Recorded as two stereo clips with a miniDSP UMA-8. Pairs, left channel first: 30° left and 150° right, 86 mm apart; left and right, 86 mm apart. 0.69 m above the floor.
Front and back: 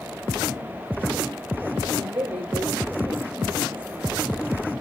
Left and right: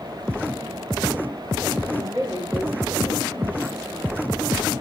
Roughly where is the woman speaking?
Behind left.